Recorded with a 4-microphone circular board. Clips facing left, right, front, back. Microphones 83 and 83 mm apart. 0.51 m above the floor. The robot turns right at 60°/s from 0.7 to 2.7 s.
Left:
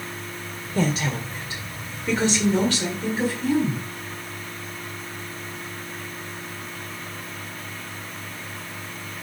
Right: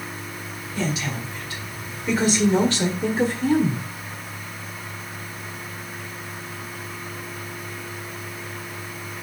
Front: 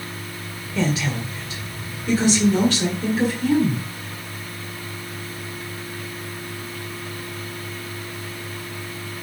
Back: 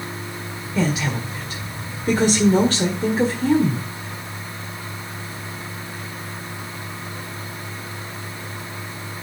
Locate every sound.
0.8 s a woman speaking: 100° left, 1.8 m; by 3.9 s 140° right, 1.8 m